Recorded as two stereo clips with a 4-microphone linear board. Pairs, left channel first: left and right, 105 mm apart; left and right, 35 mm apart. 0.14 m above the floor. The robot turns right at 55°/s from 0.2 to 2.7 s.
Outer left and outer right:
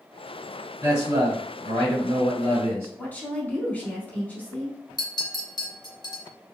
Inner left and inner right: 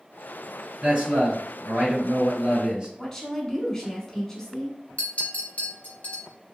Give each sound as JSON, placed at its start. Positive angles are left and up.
{"t": 0.8, "sound": "a man speaking", "azimuth_deg": -145, "distance_m": 2.0}
{"t": 3.0, "sound": "a woman speaking", "side_deg": 15, "distance_m": 1.0}
{"t": 5.0, "sound": "a clink", "side_deg": 40, "distance_m": 1.4}